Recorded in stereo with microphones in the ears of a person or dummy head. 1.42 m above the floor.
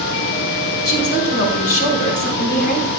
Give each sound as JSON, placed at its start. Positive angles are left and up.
{"t": 0.8, "sound": "a woman speaking", "side_deg": 55, "distance_m": 5.5}